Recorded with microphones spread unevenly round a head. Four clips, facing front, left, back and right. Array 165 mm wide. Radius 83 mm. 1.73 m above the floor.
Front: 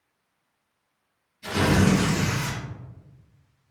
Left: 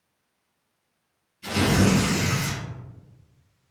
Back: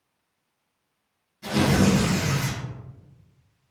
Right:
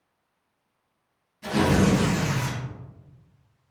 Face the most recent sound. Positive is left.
turn(degrees=-140)